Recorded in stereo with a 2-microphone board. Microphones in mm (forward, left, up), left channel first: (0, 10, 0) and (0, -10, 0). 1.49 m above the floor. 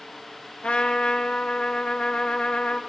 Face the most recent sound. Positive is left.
turn(degrees=70)  # may be behind; listen again after turning